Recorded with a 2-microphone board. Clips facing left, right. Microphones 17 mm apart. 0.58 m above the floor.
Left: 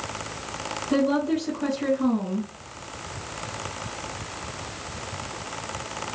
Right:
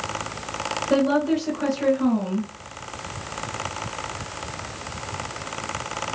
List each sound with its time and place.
0.9 s a woman speaking: 60° right (ahead or behind), 3.5 m